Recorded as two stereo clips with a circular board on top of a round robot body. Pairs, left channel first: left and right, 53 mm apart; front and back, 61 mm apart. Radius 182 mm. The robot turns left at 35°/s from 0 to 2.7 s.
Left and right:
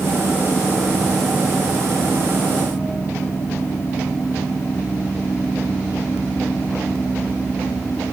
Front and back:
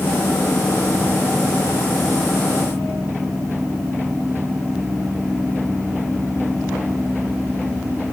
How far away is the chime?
I don't hear a chime.